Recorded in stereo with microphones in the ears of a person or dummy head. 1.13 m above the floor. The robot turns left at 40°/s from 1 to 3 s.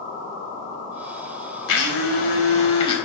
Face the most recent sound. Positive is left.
turn(degrees=20)